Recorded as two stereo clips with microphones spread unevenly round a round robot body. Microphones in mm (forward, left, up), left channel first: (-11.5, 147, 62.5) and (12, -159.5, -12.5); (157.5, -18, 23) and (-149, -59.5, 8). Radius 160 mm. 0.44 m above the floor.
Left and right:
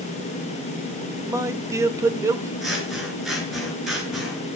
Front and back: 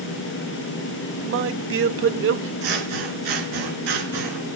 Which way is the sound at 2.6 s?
175° right.